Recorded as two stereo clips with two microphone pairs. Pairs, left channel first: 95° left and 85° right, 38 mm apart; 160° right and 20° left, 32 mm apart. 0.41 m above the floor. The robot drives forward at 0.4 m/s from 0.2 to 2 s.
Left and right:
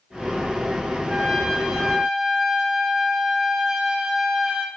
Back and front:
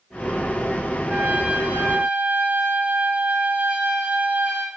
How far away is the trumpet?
About 2 m.